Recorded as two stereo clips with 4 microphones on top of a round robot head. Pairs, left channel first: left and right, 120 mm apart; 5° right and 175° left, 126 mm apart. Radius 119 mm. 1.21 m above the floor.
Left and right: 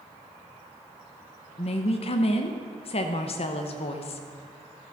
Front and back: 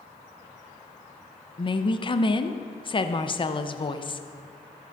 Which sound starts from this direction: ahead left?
A woman speaking, at 1.6 s.